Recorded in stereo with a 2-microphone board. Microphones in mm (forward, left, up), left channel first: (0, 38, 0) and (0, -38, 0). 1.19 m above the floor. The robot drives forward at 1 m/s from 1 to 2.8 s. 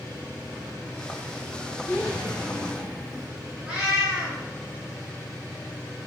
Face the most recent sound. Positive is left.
turn(degrees=-15)  # may be behind; listen again after turning